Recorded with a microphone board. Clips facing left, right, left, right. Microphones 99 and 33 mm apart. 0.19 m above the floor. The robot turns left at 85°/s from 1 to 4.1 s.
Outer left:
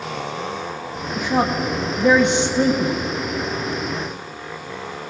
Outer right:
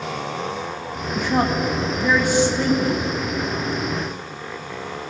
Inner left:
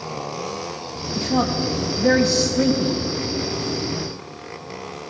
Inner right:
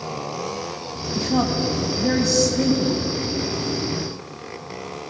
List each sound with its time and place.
1.1 s a woman speaking: 5° right (ahead or behind), 1.2 m; by 3.0 s 15° left (ahead or behind), 1.2 m